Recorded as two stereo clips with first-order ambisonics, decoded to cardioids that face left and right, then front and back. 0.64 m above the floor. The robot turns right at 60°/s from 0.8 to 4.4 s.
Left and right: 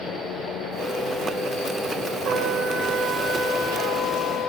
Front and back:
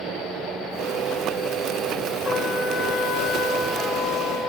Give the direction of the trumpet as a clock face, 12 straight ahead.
2 o'clock.